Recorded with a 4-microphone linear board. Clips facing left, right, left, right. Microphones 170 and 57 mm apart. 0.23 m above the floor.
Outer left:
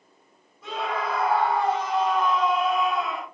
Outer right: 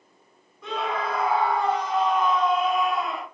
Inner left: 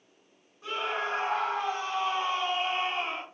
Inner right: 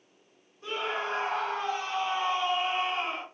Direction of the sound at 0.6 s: 5° left (ahead or behind).